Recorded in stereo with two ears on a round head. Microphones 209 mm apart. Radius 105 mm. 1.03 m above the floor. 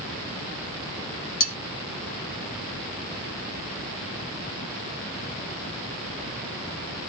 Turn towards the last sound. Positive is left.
turn(degrees=30)  # may be behind; listen again after turning